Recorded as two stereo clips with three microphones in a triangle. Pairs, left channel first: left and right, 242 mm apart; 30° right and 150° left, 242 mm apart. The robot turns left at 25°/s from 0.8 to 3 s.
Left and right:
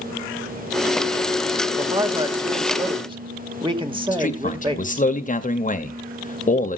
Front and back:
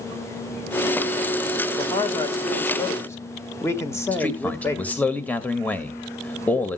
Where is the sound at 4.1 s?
50° left, 1.5 m.